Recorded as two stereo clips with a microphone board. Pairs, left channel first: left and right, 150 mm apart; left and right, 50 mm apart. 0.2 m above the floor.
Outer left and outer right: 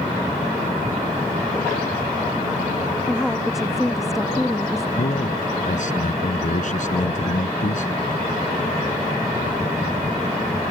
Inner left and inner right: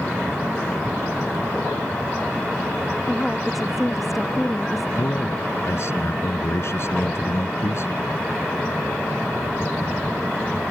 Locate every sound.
3.1 s a woman speaking: centre (ahead or behind)
5.0 s a man speaking: 60° left (ahead or behind)